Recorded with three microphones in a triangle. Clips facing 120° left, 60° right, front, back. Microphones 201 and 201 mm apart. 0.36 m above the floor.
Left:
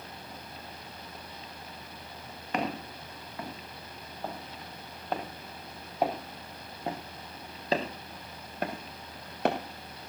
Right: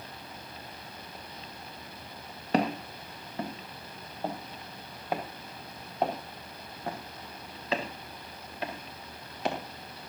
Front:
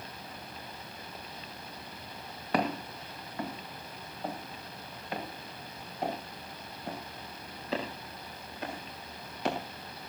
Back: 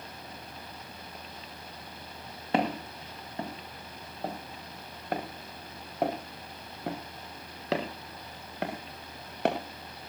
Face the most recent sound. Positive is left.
turn(degrees=150)